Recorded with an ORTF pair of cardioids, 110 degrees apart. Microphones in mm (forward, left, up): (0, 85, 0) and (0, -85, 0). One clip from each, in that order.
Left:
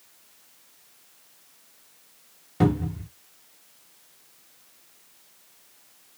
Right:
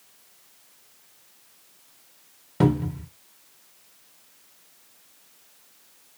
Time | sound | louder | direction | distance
2.6 | a cupboard door | right 1 dB | 15° right | 1.0 m